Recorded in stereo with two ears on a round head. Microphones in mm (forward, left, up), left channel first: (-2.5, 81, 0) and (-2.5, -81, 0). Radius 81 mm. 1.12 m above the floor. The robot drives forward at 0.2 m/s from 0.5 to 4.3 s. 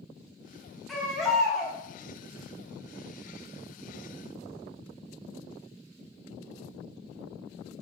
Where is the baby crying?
Centre (ahead or behind), 0.6 m.